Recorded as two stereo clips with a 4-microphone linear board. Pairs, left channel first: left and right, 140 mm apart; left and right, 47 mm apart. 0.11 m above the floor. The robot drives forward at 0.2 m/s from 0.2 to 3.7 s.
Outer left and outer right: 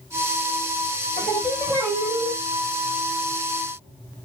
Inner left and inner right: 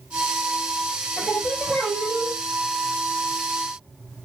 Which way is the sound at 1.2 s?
15° left (ahead or behind).